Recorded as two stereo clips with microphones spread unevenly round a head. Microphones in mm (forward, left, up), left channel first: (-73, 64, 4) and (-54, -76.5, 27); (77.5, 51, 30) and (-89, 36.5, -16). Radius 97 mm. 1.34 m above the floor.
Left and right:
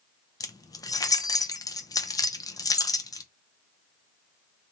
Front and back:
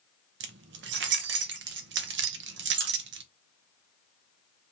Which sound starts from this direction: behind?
Keys jangling, at 0.4 s.